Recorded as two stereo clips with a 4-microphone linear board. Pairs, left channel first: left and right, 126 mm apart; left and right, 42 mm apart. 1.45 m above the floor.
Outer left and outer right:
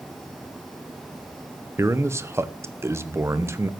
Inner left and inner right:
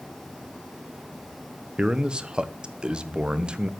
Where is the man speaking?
20° right (ahead or behind), 0.9 m.